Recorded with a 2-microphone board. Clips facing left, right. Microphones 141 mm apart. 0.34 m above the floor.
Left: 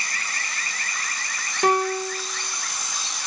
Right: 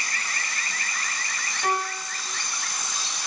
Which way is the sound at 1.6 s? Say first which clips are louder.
Left 7 dB; 80° left.